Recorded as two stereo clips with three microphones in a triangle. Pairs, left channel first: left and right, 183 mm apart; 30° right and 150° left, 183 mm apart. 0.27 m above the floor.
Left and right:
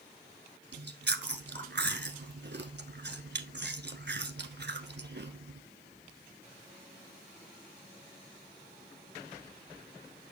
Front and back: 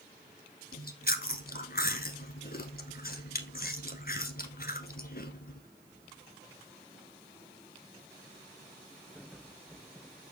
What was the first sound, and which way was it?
Chewing, 65° right.